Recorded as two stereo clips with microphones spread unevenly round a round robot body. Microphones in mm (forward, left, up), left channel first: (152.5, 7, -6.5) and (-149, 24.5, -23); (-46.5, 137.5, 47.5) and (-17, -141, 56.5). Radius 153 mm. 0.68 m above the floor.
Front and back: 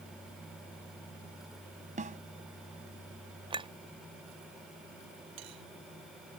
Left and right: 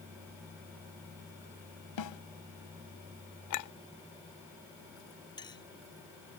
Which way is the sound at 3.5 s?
105° left.